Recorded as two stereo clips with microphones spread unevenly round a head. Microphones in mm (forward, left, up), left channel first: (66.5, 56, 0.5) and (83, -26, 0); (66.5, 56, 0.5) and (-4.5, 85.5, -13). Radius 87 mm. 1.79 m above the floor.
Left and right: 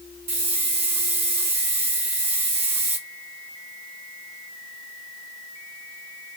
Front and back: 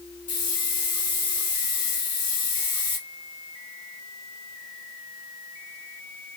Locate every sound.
0.3 s a hiss: 95° right, 2 m